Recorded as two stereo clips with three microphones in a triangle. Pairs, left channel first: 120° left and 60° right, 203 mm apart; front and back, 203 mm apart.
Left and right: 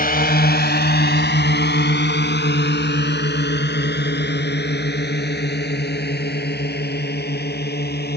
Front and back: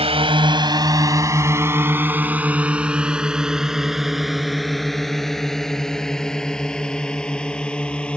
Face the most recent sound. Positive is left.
turn(degrees=85)